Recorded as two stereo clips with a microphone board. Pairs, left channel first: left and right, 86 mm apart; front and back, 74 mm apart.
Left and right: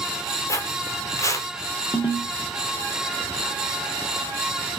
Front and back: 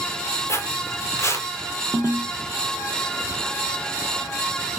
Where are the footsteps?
45° left, 0.9 m.